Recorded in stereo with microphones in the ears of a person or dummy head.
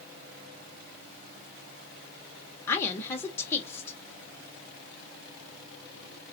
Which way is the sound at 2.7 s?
15° left (ahead or behind).